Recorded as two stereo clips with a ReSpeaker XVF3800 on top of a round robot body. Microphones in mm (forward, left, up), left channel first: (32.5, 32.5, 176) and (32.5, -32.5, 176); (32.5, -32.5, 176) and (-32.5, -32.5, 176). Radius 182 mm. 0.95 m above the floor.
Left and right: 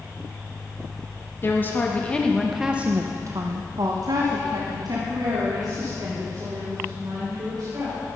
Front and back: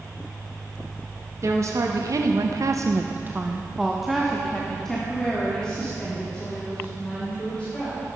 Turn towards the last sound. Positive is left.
turn(degrees=-70)